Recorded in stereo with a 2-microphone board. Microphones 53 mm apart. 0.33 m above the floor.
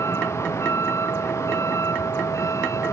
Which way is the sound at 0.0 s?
60° left (ahead or behind).